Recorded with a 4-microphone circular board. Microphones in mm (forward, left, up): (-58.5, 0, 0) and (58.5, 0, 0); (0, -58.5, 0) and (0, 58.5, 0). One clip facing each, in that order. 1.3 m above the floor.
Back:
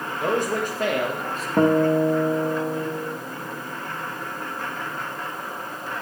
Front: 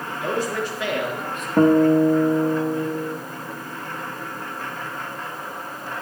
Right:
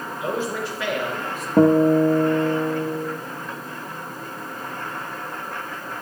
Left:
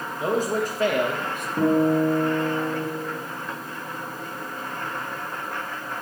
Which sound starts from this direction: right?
A guitar, at 1.6 s.